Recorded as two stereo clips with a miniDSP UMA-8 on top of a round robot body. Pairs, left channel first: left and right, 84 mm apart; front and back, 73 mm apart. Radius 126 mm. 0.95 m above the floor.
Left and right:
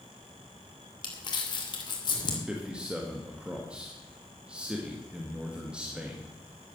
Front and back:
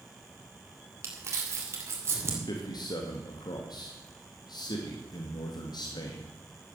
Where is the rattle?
No rattle in this recording.